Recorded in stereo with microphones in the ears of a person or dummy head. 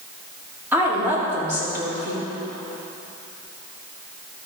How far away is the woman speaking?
About 2.5 m.